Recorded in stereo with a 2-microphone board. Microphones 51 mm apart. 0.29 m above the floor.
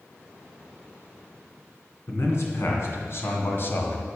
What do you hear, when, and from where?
2.1 s a man speaking: 60° left (ahead or behind), 3 m; by 4.1 s 40° left (ahead or behind), 1.3 m